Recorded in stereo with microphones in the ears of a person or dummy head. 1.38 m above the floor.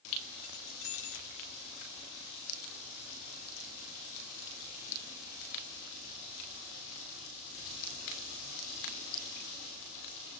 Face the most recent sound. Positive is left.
turn(degrees=60)  # may be behind; listen again after turning